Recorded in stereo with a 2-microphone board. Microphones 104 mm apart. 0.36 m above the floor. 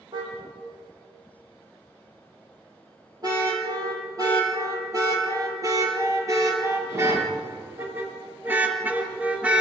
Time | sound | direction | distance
0.1 | a car horn | 45° right (ahead or behind) | 7 m